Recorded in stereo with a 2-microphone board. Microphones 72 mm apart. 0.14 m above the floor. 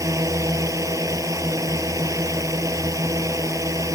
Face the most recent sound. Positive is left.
turn(degrees=-50)  # may be behind; listen again after turning